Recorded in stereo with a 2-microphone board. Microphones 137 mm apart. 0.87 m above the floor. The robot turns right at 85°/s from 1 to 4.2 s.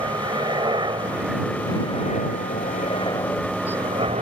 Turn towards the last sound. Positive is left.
turn(degrees=-125)